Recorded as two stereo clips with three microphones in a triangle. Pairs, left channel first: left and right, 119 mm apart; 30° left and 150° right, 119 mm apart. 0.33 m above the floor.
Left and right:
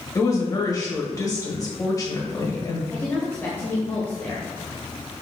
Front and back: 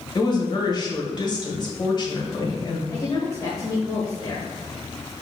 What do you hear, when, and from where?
0.1 s a woman speaking: 50° left, 1.4 m
2.9 s a woman speaking: 35° left, 1.4 m